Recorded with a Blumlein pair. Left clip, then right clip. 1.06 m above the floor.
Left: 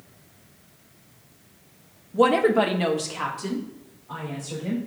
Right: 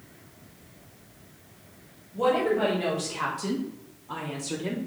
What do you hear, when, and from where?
2.1 s a woman speaking: 60° left, 1.3 m; by 4.8 s 20° right, 3 m